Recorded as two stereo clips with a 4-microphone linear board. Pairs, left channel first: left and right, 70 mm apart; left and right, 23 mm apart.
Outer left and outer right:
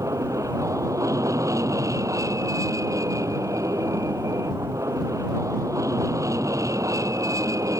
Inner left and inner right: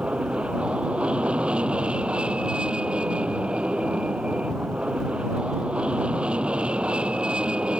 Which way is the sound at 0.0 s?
50° right (ahead or behind).